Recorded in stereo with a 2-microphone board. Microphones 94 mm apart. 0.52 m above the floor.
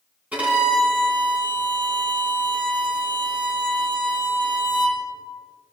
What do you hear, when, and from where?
0.3 s a violin: 15° right (ahead or behind), 2 m